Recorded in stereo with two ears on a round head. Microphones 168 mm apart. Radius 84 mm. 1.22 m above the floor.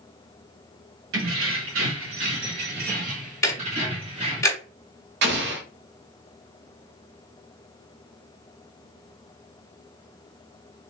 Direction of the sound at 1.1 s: 75° right (ahead or behind).